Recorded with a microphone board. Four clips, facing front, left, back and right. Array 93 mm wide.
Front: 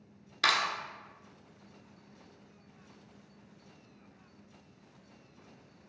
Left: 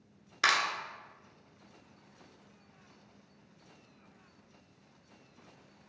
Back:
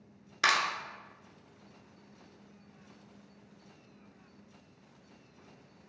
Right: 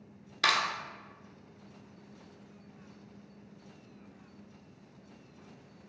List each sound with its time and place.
0.4 s a clap: 130° left, 1.4 m